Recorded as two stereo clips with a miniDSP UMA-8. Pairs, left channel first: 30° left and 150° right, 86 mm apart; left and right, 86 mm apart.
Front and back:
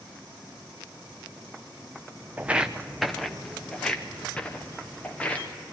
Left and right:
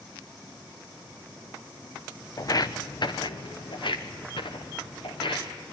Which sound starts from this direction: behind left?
Footsteps, at 2.4 s.